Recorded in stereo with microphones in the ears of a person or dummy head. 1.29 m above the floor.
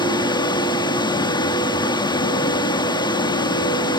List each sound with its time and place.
0.0 s running water: 30° left (ahead or behind), 1.3 m